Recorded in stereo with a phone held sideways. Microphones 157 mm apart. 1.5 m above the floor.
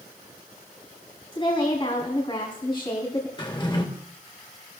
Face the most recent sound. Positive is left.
turn(degrees=30)  # may be behind; listen again after turning